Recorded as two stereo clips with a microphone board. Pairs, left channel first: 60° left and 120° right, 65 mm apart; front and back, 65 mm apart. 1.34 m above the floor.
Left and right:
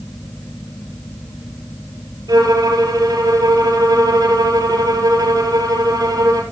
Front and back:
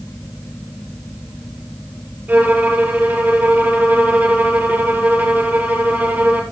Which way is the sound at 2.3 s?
115° right.